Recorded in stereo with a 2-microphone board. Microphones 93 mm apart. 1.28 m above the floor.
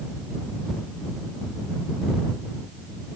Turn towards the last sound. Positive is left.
No sound to turn to.